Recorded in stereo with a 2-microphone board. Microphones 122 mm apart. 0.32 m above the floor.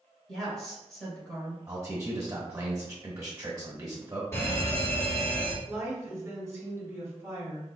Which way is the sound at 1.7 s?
25° right (ahead or behind).